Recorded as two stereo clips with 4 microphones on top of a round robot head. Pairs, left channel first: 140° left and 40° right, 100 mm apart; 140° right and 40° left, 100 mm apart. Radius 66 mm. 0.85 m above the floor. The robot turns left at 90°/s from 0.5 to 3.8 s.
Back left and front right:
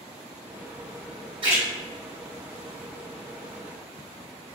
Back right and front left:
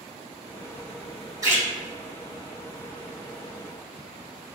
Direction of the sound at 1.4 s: 10° right.